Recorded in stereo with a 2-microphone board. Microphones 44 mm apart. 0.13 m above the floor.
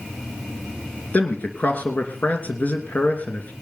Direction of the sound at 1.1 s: 45° left (ahead or behind).